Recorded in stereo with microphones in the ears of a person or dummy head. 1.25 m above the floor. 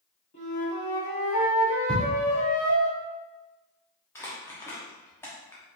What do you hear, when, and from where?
0.3 s a flute: 35° left (ahead or behind), 1.6 m
1.9 s ticking: centre (ahead or behind), 1.2 m
4.2 s crumpling: 10° left (ahead or behind), 1.0 m